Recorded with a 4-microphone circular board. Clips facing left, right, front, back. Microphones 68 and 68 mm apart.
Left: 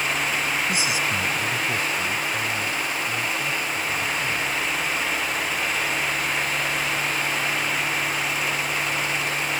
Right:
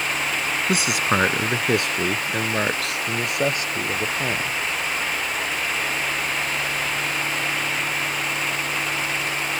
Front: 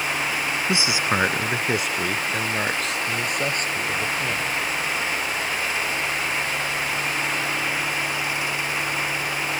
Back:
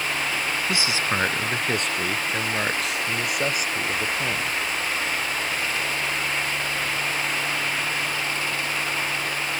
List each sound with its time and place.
0.7 s a man speaking: 65° right; by 4.6 s 100° right